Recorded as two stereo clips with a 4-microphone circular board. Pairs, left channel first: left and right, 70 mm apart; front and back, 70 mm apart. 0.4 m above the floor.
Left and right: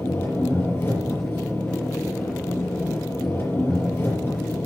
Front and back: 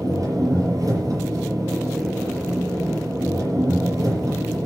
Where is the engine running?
145° left, 6.5 m.